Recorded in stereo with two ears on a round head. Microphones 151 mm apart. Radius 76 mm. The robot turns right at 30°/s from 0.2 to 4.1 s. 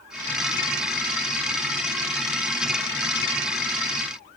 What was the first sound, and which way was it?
Only background noise.